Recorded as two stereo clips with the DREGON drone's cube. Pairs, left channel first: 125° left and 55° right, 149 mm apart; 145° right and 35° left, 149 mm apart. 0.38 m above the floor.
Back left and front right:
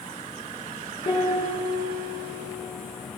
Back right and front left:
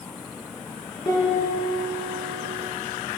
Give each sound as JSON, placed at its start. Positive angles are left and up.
{"t": 1.1, "sound": "a piano", "azimuth_deg": 160, "distance_m": 4.5}